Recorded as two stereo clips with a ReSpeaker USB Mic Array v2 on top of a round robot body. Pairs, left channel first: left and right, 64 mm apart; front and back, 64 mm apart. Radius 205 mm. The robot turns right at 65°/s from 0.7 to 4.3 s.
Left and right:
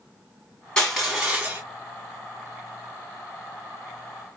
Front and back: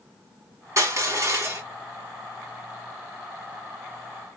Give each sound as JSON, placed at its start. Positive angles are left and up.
{"t": 0.8, "sound": "crushing", "azimuth_deg": 165, "distance_m": 1.8}